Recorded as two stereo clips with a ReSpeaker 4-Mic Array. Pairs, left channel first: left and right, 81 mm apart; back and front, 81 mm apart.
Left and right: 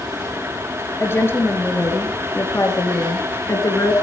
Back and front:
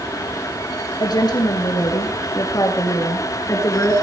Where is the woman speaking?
150° left, 6 m; by 3.9 s 130° left, 4.5 m.